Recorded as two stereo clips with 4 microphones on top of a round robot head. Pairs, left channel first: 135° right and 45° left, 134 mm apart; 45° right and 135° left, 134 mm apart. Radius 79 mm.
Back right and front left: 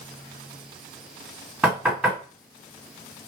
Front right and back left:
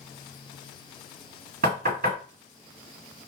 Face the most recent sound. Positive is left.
turn(degrees=125)